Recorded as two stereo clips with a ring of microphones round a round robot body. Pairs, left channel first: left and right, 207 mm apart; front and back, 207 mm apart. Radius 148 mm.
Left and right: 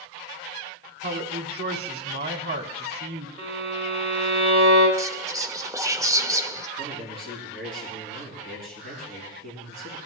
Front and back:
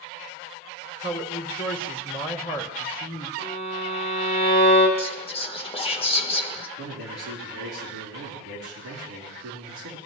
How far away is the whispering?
About 1.2 m.